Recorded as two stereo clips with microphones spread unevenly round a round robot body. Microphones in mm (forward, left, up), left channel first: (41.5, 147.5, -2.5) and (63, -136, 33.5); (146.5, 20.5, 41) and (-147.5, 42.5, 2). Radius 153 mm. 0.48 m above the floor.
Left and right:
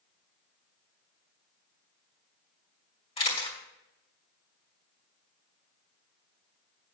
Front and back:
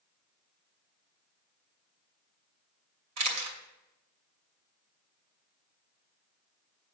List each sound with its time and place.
3.2 s a camera shutter: 160° left, 2.5 m